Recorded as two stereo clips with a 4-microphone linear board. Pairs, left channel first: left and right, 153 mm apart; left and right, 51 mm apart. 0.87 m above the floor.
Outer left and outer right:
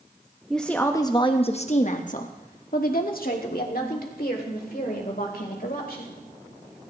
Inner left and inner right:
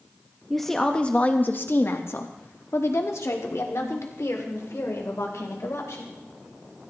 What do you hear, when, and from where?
0.5 s a woman speaking: centre (ahead or behind), 0.9 m; by 6.2 s 85° left, 4 m